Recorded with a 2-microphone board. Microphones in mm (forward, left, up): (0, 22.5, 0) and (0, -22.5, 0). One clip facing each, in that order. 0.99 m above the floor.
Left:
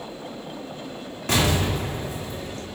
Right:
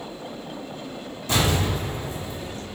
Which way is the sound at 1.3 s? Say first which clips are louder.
Left 1 dB; 80° left.